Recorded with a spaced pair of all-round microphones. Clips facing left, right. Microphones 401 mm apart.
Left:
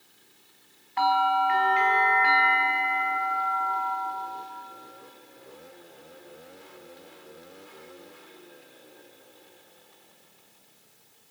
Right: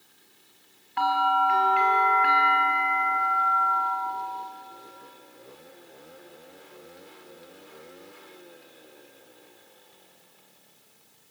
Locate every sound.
1.0 s a bell: 25° right (ahead or behind), 3.5 m